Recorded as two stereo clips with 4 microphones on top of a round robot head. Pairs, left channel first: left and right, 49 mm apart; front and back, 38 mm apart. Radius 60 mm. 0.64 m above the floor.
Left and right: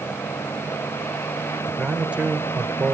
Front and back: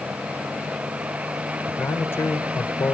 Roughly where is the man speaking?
Ahead.